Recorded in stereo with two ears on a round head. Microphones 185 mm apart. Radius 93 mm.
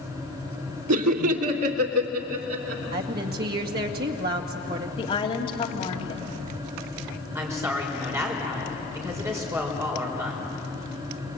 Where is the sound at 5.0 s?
25° left (ahead or behind), 3 m.